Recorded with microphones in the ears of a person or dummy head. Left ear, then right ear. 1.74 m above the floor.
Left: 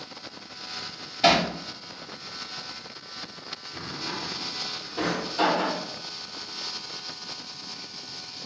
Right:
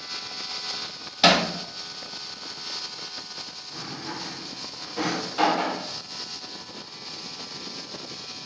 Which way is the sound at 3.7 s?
55° right (ahead or behind).